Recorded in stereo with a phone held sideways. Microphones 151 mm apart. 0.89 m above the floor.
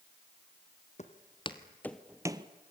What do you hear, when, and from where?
1.0 s footsteps: 50° left (ahead or behind), 1.7 m; by 2.5 s 35° right (ahead or behind), 1.1 m